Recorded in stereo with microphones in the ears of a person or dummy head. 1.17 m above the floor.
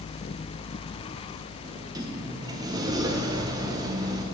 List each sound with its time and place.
1.6 s a sliding door: 20° right (ahead or behind), 1.0 m